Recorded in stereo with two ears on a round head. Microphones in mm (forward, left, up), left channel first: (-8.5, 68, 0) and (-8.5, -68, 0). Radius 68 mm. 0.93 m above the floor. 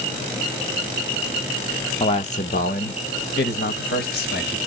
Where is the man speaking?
35° left (ahead or behind), 0.5 m; by 4.6 s 75° left (ahead or behind), 1.7 m.